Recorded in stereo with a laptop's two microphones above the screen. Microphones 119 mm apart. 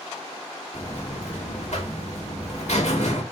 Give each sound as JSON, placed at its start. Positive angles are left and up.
{"t": 0.7, "sound": "a buzzer", "side_deg": 75, "distance_m": 1.4}